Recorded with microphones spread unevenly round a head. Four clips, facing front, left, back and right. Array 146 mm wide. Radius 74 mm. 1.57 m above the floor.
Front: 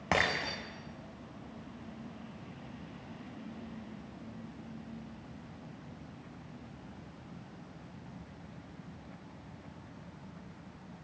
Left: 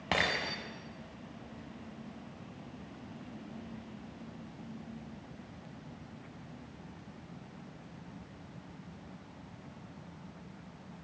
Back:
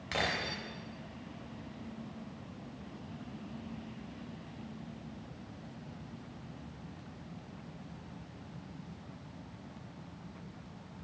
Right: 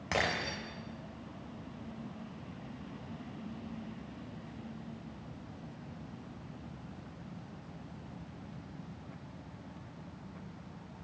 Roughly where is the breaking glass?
Ahead left.